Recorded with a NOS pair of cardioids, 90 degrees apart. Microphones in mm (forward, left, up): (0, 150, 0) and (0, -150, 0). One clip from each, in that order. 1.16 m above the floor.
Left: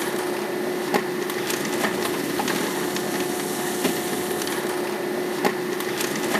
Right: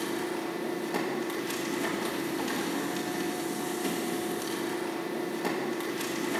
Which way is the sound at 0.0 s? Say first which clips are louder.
Left 7 dB; 65° left.